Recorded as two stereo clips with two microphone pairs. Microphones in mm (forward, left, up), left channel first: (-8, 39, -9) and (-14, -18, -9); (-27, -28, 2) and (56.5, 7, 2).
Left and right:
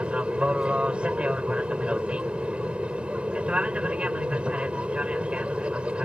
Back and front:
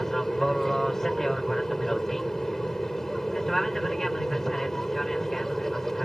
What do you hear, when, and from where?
0.0 s an aircraft: 80° right